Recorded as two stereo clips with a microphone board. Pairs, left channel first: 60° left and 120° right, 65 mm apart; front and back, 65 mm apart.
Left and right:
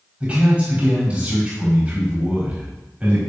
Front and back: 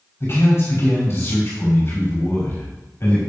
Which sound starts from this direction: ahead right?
A man speaking, at 0.2 s.